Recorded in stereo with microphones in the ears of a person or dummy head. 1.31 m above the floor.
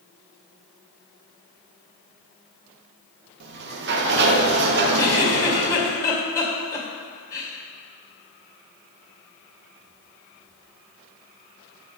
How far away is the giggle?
About 2 m.